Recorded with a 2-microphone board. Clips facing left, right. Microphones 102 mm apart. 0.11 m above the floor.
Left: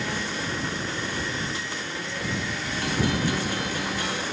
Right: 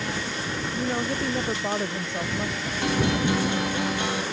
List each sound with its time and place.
0.7 s a woman speaking: 60° right (ahead or behind); by 2.7 s 50° right (ahead or behind)
2.8 s a guitar: 25° right (ahead or behind)